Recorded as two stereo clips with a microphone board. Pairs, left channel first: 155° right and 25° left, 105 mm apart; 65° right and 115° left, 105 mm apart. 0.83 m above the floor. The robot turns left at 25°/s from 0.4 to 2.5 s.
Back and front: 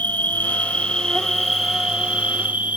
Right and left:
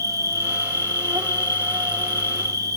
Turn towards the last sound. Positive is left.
turn(degrees=90)